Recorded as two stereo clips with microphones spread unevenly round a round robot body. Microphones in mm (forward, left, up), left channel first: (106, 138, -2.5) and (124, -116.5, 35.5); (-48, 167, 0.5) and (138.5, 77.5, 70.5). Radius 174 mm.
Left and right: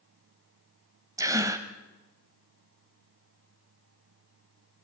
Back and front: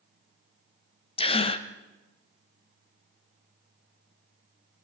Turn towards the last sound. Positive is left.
turn(degrees=-170)